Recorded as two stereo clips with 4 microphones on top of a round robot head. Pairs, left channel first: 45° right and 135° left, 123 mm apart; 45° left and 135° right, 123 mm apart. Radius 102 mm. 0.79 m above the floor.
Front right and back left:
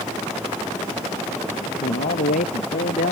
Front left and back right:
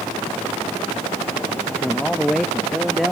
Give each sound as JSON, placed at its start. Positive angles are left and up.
{"t": 1.6, "sound": "a man speaking", "azimuth_deg": -40}